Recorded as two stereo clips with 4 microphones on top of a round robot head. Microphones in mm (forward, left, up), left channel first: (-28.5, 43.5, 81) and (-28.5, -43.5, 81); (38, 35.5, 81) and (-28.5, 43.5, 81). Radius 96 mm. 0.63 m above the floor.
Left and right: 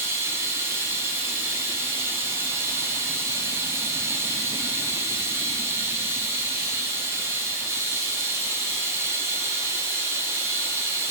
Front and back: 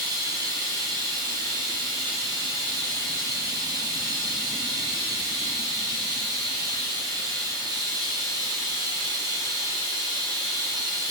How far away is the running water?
About 0.8 m.